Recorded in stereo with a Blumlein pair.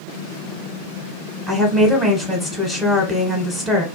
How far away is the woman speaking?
About 0.6 m.